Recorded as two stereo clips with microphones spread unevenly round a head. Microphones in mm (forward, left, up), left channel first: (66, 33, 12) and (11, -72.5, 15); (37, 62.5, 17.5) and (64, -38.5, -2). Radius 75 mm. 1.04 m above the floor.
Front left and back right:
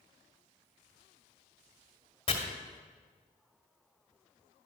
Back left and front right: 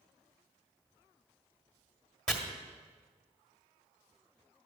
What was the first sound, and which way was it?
Chopping, 20° left.